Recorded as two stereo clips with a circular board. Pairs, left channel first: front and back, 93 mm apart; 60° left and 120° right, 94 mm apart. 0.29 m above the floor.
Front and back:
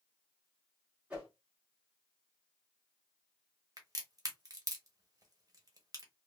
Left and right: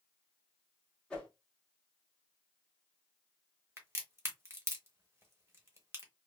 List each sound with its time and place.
1.1 s a whoosh: 130° left, 1.4 m
3.8 s a crack: 165° right, 1.1 m